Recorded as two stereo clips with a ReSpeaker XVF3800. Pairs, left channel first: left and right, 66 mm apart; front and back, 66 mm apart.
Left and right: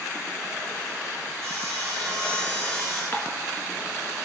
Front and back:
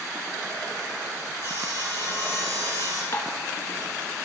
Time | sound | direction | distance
1.4 | sawing | 170° left | 6 m
3.1 | dishes clattering | 40° left | 1.5 m